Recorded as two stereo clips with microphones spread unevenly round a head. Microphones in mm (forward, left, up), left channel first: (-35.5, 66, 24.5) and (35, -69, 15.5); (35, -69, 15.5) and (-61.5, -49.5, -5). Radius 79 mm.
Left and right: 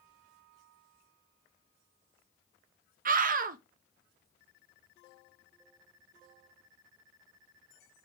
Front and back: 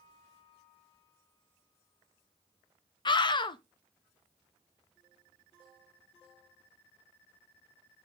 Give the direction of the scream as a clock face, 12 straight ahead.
2 o'clock.